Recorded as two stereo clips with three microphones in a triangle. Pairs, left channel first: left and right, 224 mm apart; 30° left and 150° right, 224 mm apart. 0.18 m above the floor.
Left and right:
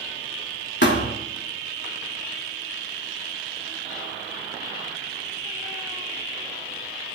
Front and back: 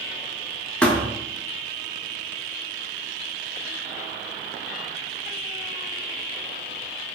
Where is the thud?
115° left, 0.8 m.